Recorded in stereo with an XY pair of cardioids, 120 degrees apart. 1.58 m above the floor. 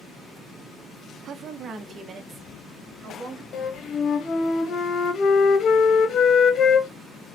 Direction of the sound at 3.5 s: 50° left.